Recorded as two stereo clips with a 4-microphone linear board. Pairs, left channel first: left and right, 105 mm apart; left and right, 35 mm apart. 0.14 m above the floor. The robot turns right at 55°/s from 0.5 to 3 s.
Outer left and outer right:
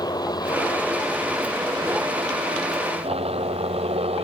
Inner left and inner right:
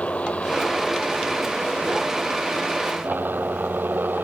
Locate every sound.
0.0 s a helicopter: 140° left; by 4.2 s 85° right